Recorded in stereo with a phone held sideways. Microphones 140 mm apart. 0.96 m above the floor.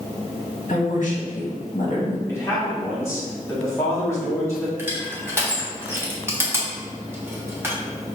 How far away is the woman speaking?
About 1.4 m.